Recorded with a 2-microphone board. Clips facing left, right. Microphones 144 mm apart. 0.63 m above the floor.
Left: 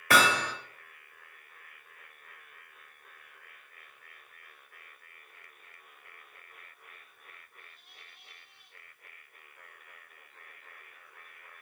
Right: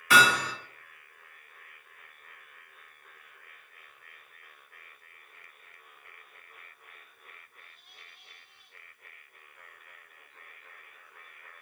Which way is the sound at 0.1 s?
60° left (ahead or behind).